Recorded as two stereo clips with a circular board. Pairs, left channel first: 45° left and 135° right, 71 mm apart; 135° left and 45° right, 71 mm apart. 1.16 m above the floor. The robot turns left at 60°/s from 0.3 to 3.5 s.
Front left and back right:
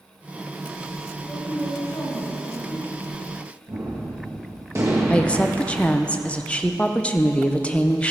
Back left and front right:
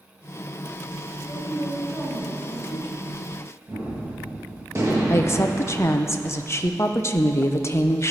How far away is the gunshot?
About 1.8 m.